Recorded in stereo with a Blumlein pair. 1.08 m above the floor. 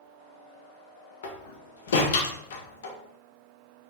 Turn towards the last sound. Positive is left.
turn(degrees=60)